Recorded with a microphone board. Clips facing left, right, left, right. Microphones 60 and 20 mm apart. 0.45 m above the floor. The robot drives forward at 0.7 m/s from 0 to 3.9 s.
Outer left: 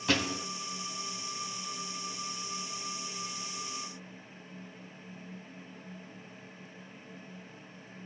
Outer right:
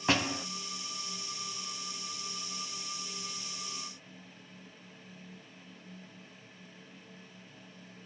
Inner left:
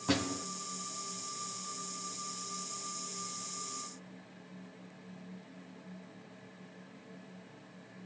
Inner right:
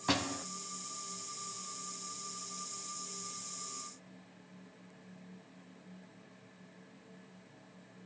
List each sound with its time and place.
0.1 s a door slam: 30° right (ahead or behind), 2.5 m